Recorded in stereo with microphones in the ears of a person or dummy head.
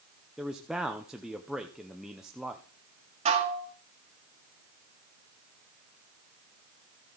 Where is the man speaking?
10° right (ahead or behind), 0.7 m.